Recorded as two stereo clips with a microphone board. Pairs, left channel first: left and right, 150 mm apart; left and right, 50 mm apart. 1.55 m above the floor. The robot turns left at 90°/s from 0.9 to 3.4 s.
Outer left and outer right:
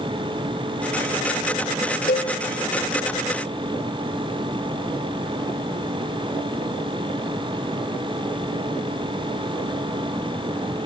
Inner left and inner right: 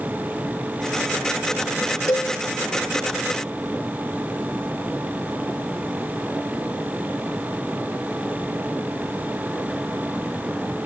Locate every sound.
2.1 s a cowbell: 75° left (ahead or behind), 1.1 m; by 2.3 s 70° left (ahead or behind), 1.1 m